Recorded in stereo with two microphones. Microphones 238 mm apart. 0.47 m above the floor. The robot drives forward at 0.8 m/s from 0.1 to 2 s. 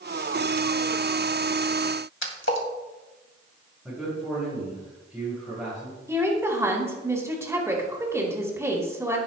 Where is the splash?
55° left (ahead or behind), 2 m.